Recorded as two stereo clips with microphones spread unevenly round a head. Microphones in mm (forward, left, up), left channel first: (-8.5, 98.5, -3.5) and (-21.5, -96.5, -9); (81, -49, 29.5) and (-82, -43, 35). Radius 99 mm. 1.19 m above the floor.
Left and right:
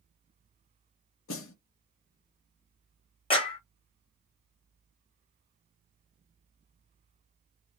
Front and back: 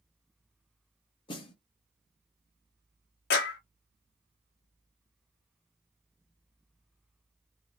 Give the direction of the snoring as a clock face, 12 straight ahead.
No snoring in this recording.